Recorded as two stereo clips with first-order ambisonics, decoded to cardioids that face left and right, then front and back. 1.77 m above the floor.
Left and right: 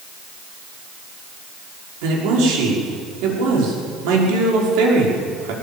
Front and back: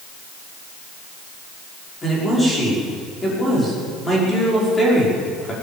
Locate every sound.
2.0 s a man speaking: 80° right, 6 m